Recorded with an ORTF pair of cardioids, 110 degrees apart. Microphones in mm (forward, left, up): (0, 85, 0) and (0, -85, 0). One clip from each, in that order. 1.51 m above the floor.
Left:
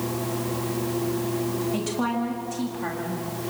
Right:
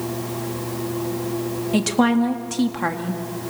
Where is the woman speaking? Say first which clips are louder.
Right 7 dB; 55° right, 2 m.